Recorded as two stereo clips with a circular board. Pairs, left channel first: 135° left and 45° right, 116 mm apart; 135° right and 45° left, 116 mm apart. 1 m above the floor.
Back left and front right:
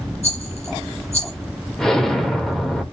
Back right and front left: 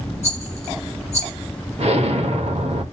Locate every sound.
0.2 s a rattle: 100° left, 6.5 m
1.8 s an explosion: 50° left, 1.6 m